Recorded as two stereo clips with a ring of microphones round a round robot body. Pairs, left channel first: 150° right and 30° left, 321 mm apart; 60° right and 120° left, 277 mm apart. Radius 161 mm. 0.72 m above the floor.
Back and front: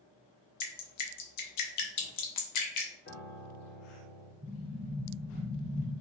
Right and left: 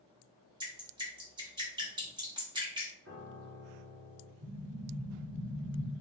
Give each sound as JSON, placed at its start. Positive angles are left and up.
{"t": 0.6, "sound": "dripping", "azimuth_deg": -165, "distance_m": 0.9}
{"t": 3.0, "sound": "a piano", "azimuth_deg": 160, "distance_m": 1.6}
{"t": 4.4, "sound": "an explosion", "azimuth_deg": 105, "distance_m": 1.3}